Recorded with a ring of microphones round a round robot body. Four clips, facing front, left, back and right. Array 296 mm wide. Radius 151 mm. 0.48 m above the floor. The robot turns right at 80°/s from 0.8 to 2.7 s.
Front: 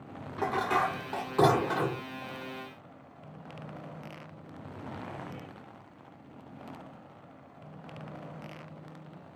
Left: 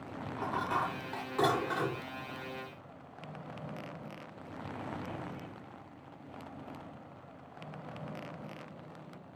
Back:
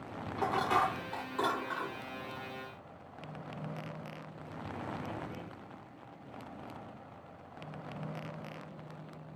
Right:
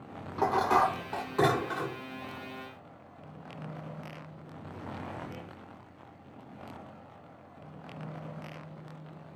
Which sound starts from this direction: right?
Dishes clattering, at 0.4 s.